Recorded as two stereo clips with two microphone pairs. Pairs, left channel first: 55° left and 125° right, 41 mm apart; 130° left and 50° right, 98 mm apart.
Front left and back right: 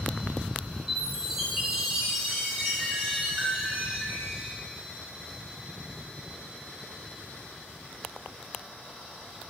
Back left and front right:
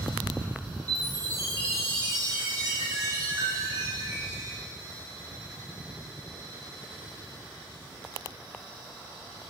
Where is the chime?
55° right, 1.4 m.